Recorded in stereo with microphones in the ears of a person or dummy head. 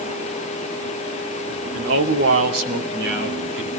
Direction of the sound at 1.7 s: 90° right.